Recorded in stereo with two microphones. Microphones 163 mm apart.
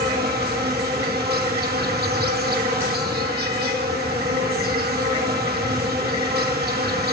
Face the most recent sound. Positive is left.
turn(degrees=-75)  # may be behind; listen again after turning